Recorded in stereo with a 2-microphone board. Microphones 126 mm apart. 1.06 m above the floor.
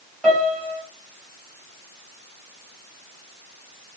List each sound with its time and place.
0.2 s a piano: centre (ahead or behind), 2.5 m